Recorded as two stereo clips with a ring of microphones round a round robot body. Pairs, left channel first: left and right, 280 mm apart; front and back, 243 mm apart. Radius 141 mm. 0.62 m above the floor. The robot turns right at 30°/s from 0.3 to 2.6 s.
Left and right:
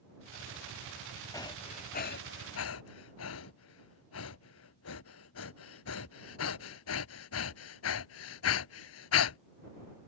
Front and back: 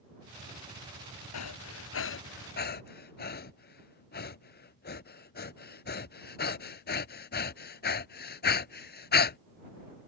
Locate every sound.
1.3 s breathing: 10° left; by 9.4 s 50° left